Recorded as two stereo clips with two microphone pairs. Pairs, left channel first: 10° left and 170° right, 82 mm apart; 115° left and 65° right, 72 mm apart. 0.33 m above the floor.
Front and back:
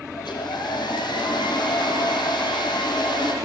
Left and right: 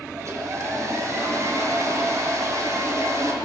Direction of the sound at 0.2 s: 20° right.